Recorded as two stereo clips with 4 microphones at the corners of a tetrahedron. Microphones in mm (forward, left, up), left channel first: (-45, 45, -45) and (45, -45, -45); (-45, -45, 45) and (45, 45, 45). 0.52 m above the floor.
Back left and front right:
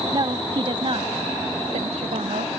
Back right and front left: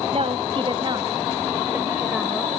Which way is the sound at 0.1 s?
10° left.